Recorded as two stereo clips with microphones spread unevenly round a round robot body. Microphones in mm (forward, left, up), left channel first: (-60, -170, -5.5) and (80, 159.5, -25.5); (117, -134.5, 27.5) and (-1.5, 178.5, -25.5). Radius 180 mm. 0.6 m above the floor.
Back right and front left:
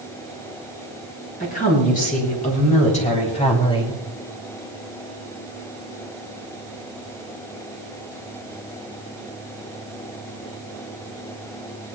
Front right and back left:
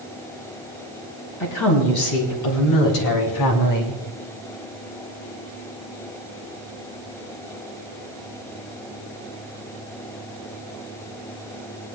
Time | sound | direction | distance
1.4 | a woman speaking | 45° right | 5.5 m